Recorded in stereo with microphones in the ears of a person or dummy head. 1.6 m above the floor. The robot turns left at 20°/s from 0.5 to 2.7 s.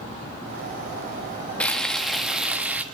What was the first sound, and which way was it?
Frying, 10° left (ahead or behind).